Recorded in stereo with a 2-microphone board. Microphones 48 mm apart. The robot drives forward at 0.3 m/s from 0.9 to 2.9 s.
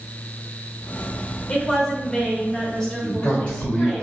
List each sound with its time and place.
1.5 s a woman speaking: 15° left (ahead or behind), 0.9 m; by 4.0 s 10° left (ahead or behind), 1.1 m
3.0 s a man speaking: 25° left (ahead or behind), 1.3 m